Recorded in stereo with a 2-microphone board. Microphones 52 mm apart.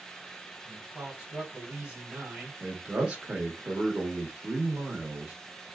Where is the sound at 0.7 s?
15° right (ahead or behind), 1.7 m.